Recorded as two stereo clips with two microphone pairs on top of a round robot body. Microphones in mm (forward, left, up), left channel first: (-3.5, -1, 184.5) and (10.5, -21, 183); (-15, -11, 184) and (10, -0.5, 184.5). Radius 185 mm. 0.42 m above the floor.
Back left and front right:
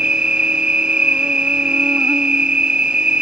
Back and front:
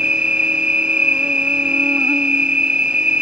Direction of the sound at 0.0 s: 20° right.